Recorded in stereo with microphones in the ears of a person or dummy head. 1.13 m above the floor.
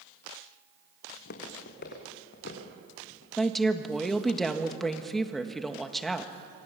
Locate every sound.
1.1 s footsteps: 55° left (ahead or behind), 3.5 m; by 3.3 s 65° left (ahead or behind), 5 m
3.4 s a woman speaking: centre (ahead or behind), 1.4 m